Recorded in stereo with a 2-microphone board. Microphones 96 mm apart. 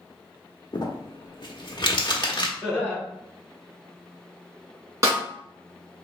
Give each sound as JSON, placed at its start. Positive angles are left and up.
{"t": 0.7, "sound": "crumpling", "side_deg": 55, "distance_m": 0.9}
{"t": 2.6, "sound": "laughter", "side_deg": -5, "distance_m": 1.8}
{"t": 5.0, "sound": "a snare drum", "side_deg": -30, "distance_m": 1.7}